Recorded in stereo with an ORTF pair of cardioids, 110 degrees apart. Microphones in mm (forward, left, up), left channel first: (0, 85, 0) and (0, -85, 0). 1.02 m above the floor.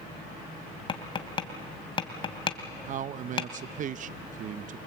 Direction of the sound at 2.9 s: 50° right.